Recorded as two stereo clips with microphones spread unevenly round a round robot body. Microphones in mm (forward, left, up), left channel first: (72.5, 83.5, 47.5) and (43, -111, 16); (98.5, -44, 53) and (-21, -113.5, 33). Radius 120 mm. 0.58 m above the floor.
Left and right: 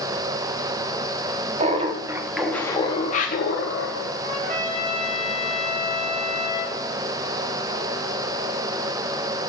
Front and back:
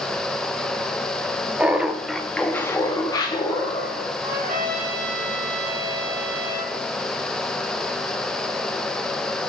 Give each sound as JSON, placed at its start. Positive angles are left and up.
{"t": 1.6, "sound": "laughter", "azimuth_deg": -80, "distance_m": 1.1}
{"t": 4.2, "sound": "a trumpet", "azimuth_deg": -160, "distance_m": 3.0}